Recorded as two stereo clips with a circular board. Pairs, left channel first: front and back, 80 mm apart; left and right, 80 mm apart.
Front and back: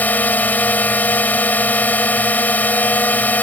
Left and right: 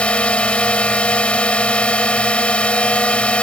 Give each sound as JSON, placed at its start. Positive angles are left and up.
{"t": 0.0, "sound": "a drone", "azimuth_deg": 35}